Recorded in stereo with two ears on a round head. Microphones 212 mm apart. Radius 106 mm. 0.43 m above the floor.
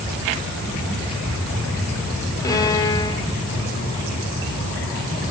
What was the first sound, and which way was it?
A violin, 15° left (ahead or behind).